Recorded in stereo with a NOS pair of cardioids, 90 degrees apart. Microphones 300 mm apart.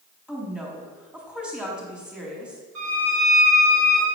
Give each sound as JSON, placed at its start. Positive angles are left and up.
{"t": 0.3, "sound": "a woman speaking", "azimuth_deg": -5, "distance_m": 3.5}
{"t": 2.8, "sound": "a violin", "azimuth_deg": -60, "distance_m": 4.0}